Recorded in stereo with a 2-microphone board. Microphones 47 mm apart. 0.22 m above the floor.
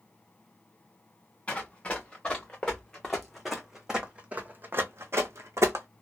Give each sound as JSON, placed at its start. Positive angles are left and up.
{"t": 1.5, "sound": "running footsteps", "side_deg": 20, "distance_m": 2.0}